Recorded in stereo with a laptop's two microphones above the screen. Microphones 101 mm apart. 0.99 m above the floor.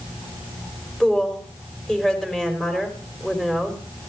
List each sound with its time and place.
1.0 s a woman speaking: 5° left (ahead or behind), 4.5 m